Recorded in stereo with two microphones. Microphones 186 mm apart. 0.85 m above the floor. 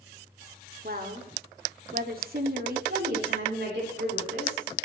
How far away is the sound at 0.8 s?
About 2 m.